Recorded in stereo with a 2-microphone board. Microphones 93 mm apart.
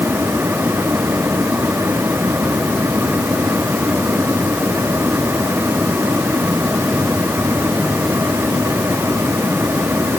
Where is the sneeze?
I don't hear a sneeze.